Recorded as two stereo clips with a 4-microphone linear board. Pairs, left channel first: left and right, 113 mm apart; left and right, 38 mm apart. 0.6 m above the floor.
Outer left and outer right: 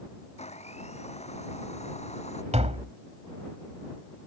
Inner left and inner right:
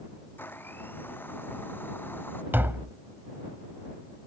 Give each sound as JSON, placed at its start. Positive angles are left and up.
{"t": 0.4, "sound": "a blender", "side_deg": 70}
{"t": 2.5, "sound": "tapping", "side_deg": -70}